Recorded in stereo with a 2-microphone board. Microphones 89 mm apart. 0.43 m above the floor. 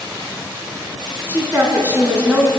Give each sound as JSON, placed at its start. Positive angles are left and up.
{"t": 1.3, "sound": "a woman speaking", "side_deg": -25, "distance_m": 4.0}